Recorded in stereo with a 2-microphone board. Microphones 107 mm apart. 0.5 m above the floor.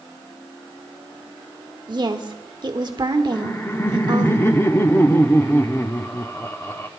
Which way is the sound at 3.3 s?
25° left (ahead or behind).